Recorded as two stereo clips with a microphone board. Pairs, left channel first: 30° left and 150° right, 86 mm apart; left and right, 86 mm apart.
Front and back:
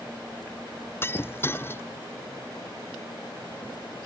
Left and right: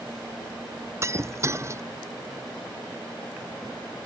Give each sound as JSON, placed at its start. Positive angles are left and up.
{"t": 1.0, "sound": "breaking glass", "azimuth_deg": -35}